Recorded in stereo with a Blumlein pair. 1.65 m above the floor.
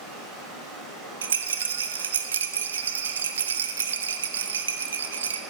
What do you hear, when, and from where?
0.0 s running water: 20° right, 4.5 m
1.2 s a rattle: 65° right, 0.6 m